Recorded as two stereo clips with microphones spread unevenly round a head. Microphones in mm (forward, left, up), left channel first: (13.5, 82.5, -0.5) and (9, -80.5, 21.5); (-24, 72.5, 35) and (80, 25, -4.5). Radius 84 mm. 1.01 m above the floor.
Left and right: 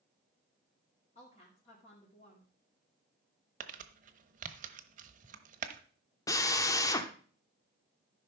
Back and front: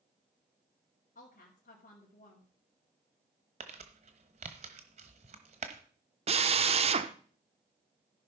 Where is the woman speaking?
145° left, 2.5 m.